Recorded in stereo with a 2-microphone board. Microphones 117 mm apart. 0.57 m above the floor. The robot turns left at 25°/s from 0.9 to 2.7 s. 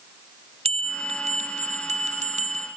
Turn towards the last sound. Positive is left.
turn(degrees=-105)